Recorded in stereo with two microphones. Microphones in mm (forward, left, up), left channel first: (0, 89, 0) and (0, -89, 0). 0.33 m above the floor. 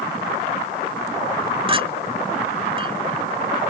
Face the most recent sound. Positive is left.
turn(degrees=-30)  # may be behind; listen again after turning